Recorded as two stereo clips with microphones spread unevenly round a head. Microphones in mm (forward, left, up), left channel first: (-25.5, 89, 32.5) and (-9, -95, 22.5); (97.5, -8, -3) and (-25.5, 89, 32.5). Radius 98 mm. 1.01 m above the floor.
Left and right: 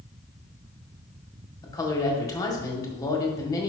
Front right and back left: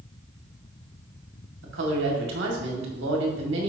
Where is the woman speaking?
165° left, 2 m.